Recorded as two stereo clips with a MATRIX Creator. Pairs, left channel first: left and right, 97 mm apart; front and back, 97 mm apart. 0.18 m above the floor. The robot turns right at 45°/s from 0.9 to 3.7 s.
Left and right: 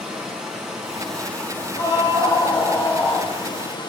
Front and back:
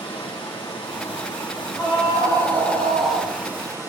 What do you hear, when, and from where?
0.0 s running water: 5° right, 4 m; by 3.9 s 120° left, 4 m
1.8 s a scream: 100° left, 3 m; by 3.3 s 170° left, 3 m